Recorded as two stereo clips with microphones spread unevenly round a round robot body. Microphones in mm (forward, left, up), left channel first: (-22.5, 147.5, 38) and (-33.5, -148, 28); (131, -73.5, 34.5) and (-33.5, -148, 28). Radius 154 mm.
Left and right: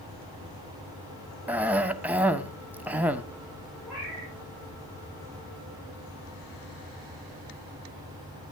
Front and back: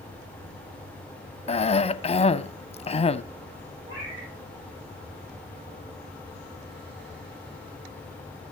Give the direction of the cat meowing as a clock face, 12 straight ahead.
6 o'clock.